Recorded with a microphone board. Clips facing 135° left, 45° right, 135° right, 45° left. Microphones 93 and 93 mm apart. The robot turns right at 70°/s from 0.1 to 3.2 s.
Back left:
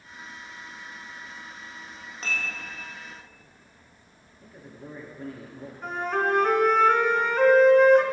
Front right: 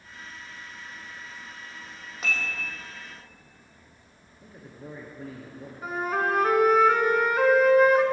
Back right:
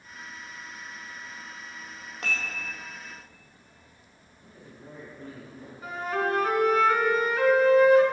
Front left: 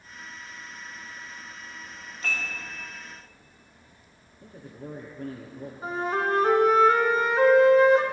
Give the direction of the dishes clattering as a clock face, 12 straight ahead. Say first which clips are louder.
Front right 2 dB, even; 4 o'clock.